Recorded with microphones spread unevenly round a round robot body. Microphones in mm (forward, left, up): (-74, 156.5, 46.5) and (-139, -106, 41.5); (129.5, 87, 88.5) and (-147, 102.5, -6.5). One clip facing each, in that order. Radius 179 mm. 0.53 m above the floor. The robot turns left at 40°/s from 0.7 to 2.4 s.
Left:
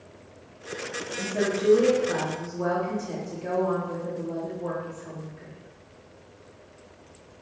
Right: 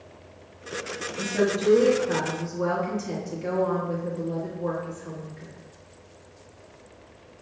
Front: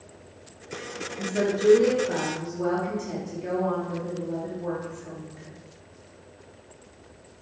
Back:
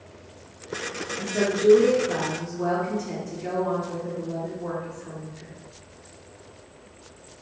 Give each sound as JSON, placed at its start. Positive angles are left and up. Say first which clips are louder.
{"t": 1.2, "sound": "a woman speaking", "louder": "right 2 dB, back 1 dB", "azimuth_deg": -90, "distance_m": 1.1}